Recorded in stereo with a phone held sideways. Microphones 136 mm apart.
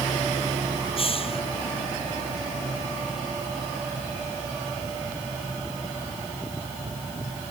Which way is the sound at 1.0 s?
45° left (ahead or behind).